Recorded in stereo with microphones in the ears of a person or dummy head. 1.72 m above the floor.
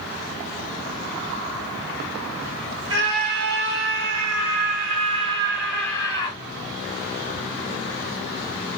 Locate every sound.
2.9 s a scream: 70° right (ahead or behind), 2 m; by 6.4 s 35° left (ahead or behind), 0.9 m